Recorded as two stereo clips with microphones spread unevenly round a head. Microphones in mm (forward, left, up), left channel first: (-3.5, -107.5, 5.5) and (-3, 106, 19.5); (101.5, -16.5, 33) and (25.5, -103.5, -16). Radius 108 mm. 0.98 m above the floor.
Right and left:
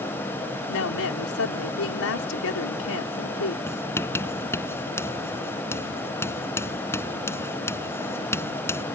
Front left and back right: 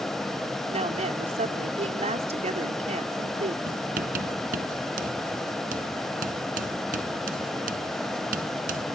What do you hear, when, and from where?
0.7 s a woman speaking: 110° right
3.7 s writing: 170° right